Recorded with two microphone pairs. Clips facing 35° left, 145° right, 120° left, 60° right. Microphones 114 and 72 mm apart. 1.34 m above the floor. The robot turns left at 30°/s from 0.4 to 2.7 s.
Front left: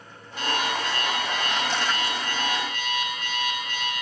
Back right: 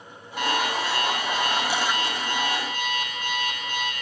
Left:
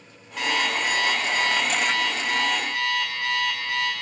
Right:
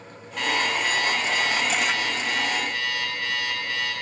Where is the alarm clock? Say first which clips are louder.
Back right 2 dB, even; 155° right, 2 m; by 3.9 s 135° left, 2 m.